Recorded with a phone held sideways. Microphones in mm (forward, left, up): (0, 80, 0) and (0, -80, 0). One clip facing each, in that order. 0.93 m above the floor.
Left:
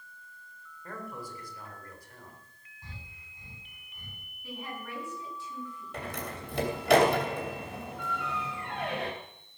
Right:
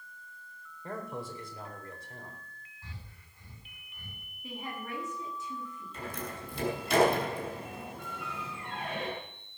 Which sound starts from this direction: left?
A door slam, at 5.9 s.